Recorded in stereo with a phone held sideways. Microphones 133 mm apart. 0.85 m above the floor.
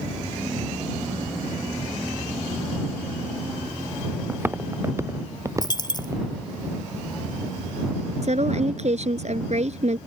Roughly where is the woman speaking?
Right.